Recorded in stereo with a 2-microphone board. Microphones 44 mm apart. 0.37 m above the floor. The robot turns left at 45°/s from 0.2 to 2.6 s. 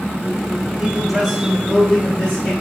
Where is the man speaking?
150° right, 1.3 m; by 2.5 s 130° left, 1.3 m.